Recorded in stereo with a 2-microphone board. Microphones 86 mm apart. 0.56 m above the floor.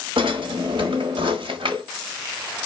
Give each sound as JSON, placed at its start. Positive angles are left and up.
{"t": 0.2, "sound": "a drawer", "side_deg": -75, "distance_m": 1.4}